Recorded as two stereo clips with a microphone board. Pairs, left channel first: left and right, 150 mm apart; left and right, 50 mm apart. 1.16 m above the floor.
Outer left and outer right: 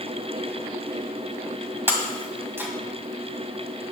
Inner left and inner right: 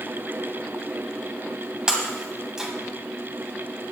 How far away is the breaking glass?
About 1.9 m.